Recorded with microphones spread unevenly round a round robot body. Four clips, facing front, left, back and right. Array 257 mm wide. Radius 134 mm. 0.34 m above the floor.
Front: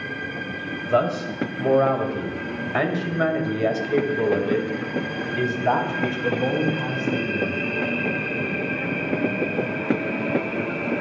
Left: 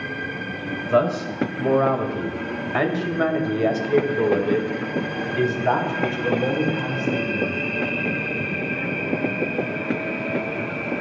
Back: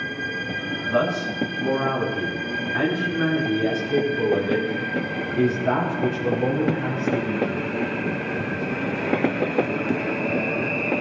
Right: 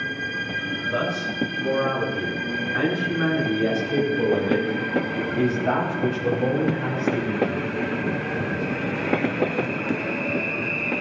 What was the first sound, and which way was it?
A man speaking, 65° left.